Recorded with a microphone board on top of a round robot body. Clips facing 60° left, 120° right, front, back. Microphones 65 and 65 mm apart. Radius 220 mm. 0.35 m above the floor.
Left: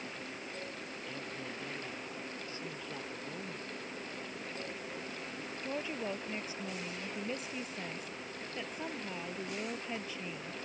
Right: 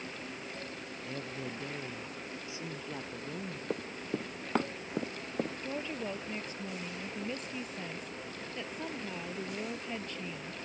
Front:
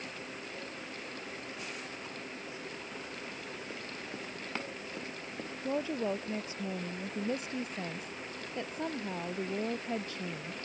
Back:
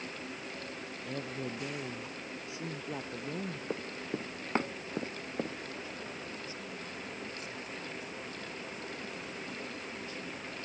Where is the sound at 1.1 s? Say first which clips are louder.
Right 4 dB, back 5 dB; 170° left; by 3.6 s 160° left.